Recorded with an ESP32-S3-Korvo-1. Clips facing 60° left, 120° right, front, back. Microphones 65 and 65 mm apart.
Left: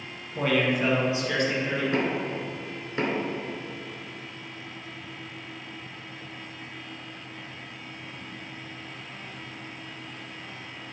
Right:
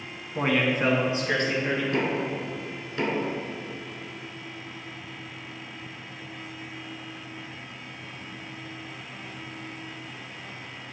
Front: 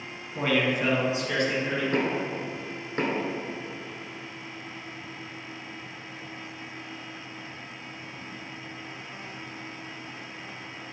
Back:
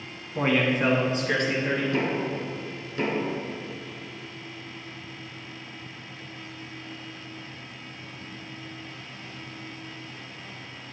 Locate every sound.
0.3 s a man speaking: 135° right, 1.1 m; by 1.8 s 165° right, 2 m
1.9 s knocking: 5° left, 1.2 m